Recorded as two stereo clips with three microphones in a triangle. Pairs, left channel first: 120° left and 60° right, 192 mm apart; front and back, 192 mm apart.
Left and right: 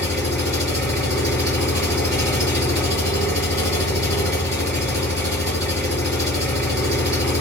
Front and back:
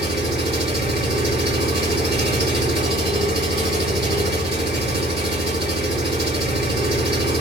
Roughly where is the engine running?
Behind.